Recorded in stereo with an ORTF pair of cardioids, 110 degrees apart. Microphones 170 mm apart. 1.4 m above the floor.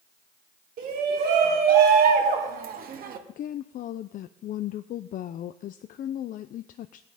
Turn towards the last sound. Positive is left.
turn(degrees=55)